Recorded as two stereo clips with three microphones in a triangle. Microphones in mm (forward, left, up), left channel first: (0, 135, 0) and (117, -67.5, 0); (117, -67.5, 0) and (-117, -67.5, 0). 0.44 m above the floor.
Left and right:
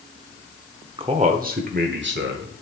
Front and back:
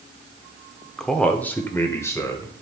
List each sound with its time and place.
1.0 s a man speaking: 85° right, 0.8 m; by 2.6 s 75° right, 1.6 m